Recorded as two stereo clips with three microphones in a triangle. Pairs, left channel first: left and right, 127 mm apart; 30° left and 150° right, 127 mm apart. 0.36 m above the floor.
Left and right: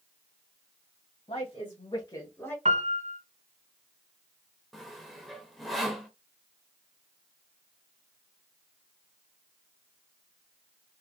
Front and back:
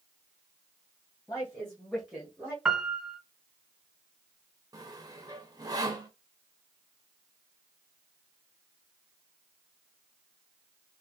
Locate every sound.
1.3 s a woman speaking: 95° left, 2 m; by 2.5 s 160° left, 1.5 m
2.6 s a piano: 65° right, 0.6 m
4.7 s sawing: straight behind, 0.9 m